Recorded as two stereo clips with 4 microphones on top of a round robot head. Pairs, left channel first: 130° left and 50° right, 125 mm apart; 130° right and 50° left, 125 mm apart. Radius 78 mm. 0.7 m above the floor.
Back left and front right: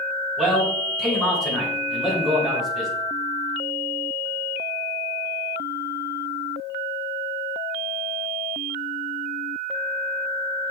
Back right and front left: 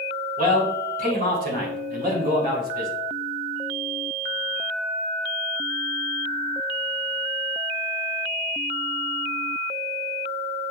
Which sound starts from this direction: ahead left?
A man speaking, at 0.4 s.